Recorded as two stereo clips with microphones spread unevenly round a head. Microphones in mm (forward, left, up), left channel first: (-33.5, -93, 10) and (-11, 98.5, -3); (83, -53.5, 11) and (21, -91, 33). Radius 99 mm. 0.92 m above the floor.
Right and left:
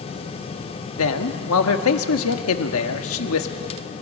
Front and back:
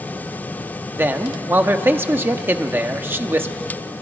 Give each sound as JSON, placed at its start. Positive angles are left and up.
{"t": 1.0, "sound": "a man speaking", "azimuth_deg": -80, "distance_m": 1.7}